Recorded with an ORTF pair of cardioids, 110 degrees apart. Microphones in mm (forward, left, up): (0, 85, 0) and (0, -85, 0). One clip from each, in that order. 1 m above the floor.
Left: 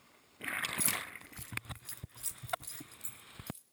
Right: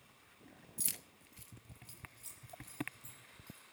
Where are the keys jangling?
5° left, 0.8 m; by 3.6 s 70° left, 3 m.